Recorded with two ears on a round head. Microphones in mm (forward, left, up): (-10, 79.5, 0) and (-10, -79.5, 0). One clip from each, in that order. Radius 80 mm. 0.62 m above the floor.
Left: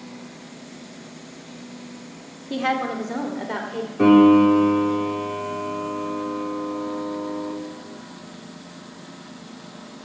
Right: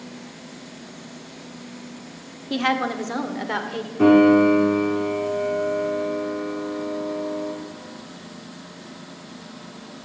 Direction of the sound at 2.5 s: 30° right (ahead or behind).